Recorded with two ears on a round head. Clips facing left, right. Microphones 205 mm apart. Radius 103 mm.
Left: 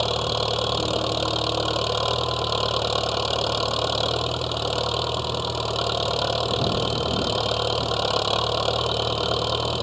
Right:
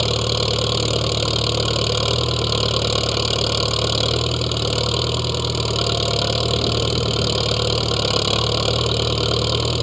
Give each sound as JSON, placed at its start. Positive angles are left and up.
{"t": 0.0, "sound": "an engine running", "side_deg": -30}